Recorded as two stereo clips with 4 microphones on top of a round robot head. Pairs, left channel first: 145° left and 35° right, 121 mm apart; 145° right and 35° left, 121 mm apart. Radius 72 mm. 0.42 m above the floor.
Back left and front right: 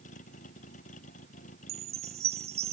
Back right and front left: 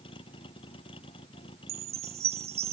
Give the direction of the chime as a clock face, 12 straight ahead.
12 o'clock.